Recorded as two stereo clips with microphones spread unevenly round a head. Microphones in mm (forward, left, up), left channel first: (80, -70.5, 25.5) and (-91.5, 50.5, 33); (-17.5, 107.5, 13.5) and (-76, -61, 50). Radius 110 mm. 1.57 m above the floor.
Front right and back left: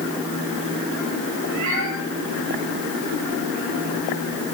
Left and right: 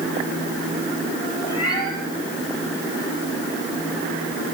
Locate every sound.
1.4 s a cat meowing: 140° left, 6 m